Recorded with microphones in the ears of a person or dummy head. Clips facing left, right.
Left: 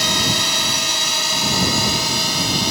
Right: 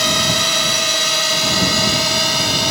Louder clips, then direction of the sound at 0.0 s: Right 3 dB; 75° right (ahead or behind).